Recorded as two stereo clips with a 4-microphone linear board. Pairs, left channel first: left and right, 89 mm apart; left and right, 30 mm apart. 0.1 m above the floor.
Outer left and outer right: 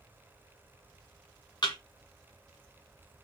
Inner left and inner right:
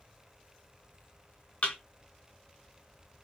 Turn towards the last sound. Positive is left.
turn(degrees=55)  # may be behind; listen again after turning